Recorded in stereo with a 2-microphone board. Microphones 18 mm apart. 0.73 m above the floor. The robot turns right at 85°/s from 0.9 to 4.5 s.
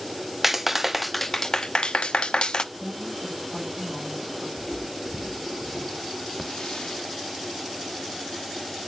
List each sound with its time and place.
0.4 s a clap: 15° right, 0.5 m; by 2.6 s 130° left, 0.5 m
2.7 s a woman speaking: 155° left, 4.5 m; by 4.5 s 60° right, 4.5 m
4.6 s footsteps: 30° left (ahead or behind), 0.9 m; by 6.3 s 35° right (ahead or behind), 1.3 m
6.4 s a hiss: 55° left (ahead or behind), 0.8 m